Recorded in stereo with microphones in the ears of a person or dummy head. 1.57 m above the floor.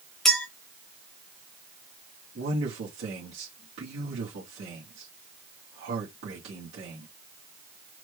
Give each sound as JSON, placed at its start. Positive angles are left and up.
{"t": 0.2, "sound": "a clink", "side_deg": 5, "distance_m": 0.8}
{"t": 2.4, "sound": "a man speaking", "side_deg": -70, "distance_m": 2.0}